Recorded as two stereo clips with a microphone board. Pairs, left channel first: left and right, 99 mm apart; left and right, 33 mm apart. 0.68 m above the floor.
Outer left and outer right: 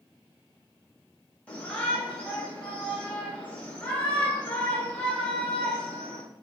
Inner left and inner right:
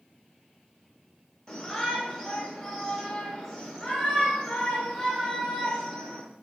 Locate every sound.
1.5 s a shout: 15° left (ahead or behind), 1.0 m